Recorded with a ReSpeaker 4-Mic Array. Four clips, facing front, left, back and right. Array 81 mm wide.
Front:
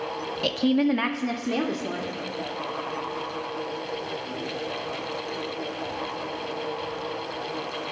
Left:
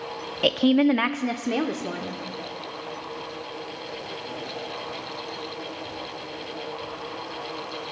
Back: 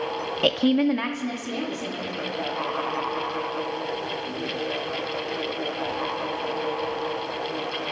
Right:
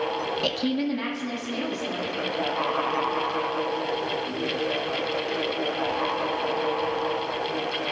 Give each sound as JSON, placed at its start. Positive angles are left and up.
{"t": 0.4, "sound": "a woman speaking", "azimuth_deg": 150, "distance_m": 0.7}